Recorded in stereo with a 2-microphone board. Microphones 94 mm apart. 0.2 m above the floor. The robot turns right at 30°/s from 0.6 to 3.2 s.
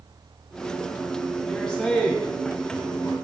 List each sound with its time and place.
1.4 s a man speaking: 5° left (ahead or behind), 1.1 m; by 3.1 s 20° left (ahead or behind), 1.1 m